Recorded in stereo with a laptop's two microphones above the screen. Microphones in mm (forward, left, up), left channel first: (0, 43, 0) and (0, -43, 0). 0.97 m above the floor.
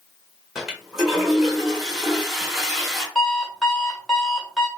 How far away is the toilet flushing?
About 1.9 m.